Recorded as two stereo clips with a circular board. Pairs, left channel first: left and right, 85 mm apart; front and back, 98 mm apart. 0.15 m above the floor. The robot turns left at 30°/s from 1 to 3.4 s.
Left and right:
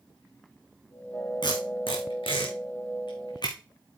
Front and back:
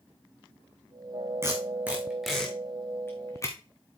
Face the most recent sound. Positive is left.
turn(degrees=55)